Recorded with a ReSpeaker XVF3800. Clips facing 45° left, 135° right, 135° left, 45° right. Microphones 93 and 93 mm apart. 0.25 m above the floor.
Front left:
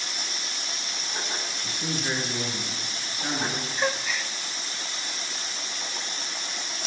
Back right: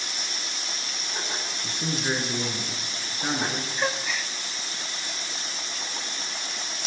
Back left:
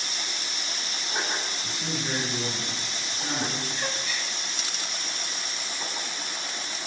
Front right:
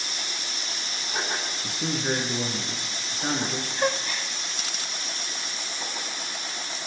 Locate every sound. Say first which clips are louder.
1.6 s a man speaking: back right 2 dB, front right 3 dB; 75° right, 4 m
3.8 s a gasp: front left 1 dB, front right 6 dB; 45° right, 0.7 m